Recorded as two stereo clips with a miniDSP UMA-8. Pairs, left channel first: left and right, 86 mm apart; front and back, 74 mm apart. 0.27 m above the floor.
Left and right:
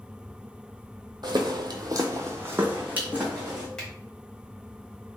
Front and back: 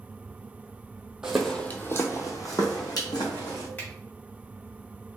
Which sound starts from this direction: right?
Footsteps, at 1.2 s.